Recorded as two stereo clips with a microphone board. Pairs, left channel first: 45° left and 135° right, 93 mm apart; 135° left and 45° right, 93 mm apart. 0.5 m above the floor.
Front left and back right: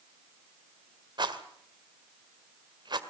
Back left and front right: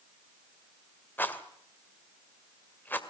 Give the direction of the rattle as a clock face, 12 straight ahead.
5 o'clock.